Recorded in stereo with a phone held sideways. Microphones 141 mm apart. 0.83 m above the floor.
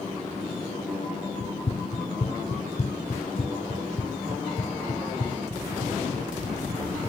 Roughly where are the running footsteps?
Left.